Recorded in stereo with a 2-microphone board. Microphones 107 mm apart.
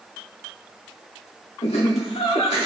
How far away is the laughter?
About 2 m.